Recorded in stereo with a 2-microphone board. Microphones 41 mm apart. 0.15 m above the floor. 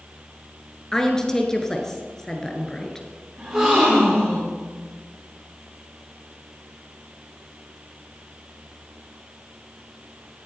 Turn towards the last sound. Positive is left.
turn(degrees=-25)  # may be behind; listen again after turning